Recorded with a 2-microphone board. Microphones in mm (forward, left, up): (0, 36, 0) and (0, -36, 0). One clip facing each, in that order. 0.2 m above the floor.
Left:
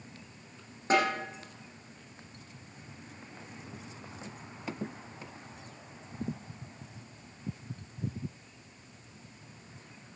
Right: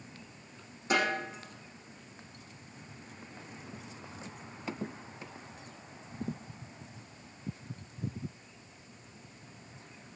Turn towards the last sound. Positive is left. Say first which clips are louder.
# left 3 dB
turn(degrees=35)  # may be behind; listen again after turning